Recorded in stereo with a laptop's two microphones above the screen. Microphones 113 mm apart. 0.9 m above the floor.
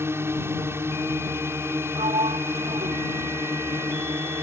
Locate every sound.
0.0 s a drone: 20° right (ahead or behind)
2.0 s a sliding door: 70° right (ahead or behind)